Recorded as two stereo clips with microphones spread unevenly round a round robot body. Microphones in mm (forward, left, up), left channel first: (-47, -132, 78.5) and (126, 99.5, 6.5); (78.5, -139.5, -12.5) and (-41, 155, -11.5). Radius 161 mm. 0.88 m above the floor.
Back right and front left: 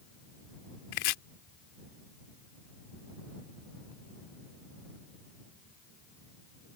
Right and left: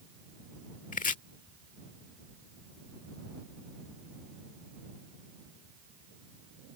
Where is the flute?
I don't hear a flute.